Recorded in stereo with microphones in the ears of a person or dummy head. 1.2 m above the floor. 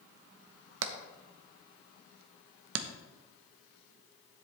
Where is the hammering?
75° right (ahead or behind), 1.0 m.